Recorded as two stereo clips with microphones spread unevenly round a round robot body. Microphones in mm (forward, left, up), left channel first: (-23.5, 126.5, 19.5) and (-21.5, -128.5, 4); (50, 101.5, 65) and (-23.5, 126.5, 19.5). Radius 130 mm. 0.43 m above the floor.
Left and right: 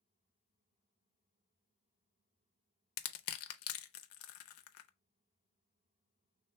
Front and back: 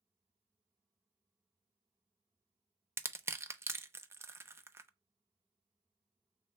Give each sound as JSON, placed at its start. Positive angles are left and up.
{"t": 3.0, "sound": "crushing", "azimuth_deg": 120, "distance_m": 0.6}